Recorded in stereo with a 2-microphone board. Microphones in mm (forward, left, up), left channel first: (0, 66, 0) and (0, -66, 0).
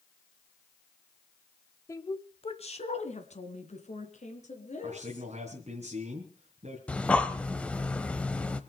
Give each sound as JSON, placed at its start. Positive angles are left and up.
{"t": 1.9, "sound": "a woman speaking", "side_deg": 20, "distance_m": 1.0}
{"t": 4.8, "sound": "a man speaking", "side_deg": -55, "distance_m": 3.5}
{"t": 6.9, "sound": "breathing", "side_deg": 10, "distance_m": 1.0}